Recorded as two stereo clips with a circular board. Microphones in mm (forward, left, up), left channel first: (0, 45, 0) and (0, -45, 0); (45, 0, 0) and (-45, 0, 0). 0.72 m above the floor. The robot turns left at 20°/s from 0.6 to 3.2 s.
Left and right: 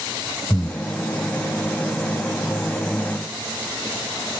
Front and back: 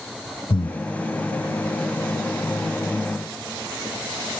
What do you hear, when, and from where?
0.5 s breathing: 5° left, 1.5 m; by 0.8 s straight ahead, 1.5 m